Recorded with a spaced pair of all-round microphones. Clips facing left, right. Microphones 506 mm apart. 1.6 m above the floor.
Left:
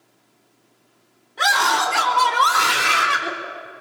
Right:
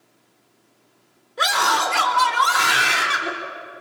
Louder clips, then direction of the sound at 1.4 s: Even; 10° left (ahead or behind).